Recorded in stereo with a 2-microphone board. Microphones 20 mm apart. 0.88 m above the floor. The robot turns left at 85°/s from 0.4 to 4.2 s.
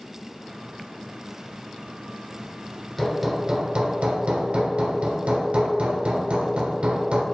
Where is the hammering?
10° left, 1.2 m; by 7.2 s 95° right, 1.2 m.